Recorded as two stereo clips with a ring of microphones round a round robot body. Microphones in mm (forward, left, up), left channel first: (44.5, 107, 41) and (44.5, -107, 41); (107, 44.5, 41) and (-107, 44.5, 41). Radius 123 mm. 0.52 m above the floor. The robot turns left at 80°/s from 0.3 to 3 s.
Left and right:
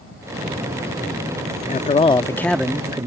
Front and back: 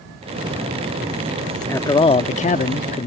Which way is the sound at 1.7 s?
70° left.